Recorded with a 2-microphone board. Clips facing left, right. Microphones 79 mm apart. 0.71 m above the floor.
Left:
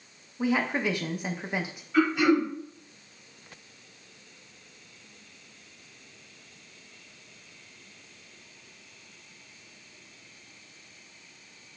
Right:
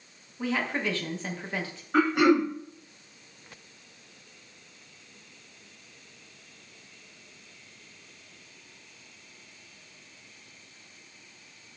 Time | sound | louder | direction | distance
0.4 | a woman speaking | left 3 dB | 15° left (ahead or behind) | 0.5 m
1.9 | throat clearing | right 1 dB | 60° right (ahead or behind) | 1.0 m